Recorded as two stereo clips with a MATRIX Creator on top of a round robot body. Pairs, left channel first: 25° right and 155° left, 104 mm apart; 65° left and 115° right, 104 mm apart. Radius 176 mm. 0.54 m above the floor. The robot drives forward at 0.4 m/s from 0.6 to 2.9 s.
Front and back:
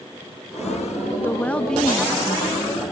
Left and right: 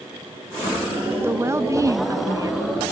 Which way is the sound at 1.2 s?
70° right.